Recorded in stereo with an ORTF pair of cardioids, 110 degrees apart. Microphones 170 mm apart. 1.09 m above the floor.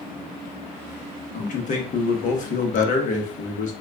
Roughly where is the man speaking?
Ahead left.